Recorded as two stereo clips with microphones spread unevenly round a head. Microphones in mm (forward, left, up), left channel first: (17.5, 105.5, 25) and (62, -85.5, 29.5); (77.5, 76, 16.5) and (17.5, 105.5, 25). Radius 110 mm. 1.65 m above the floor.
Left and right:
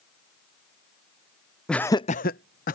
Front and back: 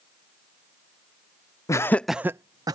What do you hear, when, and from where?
1.7 s laughter: 15° left; by 2.8 s 160° left